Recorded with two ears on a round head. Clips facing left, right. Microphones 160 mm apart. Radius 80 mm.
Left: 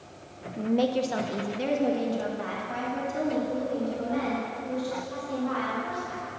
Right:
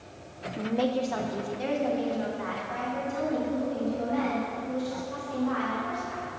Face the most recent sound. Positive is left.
turn(degrees=40)  # may be behind; listen again after turning